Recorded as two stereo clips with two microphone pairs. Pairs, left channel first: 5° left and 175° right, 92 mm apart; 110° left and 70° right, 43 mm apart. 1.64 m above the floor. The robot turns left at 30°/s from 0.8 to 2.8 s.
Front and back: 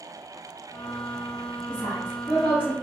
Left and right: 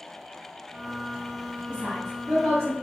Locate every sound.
1.7 s a woman speaking: 30° right, 0.5 m; by 2.7 s 60° right, 0.5 m